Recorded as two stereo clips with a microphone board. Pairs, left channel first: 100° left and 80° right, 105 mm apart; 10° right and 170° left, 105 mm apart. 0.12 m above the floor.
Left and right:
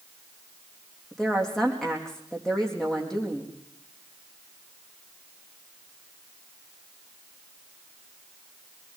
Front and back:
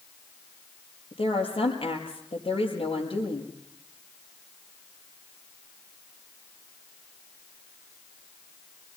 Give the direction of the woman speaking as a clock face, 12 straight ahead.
11 o'clock.